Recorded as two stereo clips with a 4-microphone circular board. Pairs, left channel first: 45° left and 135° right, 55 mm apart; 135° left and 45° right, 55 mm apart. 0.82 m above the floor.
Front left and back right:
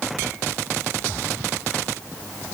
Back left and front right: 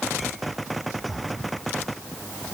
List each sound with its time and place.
Only background noise.